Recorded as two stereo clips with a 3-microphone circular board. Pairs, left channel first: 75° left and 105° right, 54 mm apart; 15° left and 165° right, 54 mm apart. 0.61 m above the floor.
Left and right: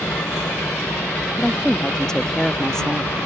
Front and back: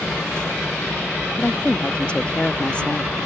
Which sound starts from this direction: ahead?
A woman speaking, at 1.4 s.